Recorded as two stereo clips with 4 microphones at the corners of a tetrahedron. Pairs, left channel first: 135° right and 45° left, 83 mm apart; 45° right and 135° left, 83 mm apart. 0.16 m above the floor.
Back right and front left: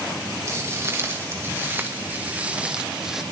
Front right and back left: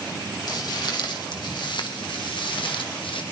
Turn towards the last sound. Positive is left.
turn(degrees=-40)